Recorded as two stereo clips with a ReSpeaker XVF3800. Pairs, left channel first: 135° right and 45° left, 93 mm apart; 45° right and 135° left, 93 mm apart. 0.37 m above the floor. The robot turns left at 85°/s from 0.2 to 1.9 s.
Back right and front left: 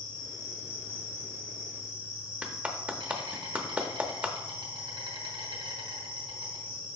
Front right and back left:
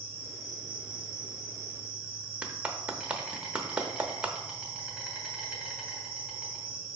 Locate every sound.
0.0 s an insect: 160° right, 2.5 m; by 7.0 s 55° left, 2.5 m
2.4 s a clap: 90° left, 0.9 m